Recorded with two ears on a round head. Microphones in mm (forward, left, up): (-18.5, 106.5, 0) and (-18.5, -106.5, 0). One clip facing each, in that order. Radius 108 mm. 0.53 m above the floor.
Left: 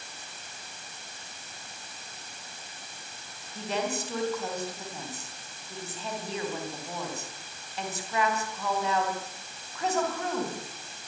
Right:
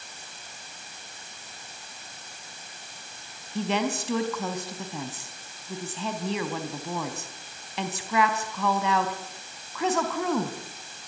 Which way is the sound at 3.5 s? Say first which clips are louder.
Right 4 dB; 65° right (ahead or behind).